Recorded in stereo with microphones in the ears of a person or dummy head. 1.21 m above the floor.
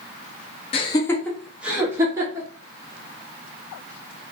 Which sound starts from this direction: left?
Laughter, at 0.7 s.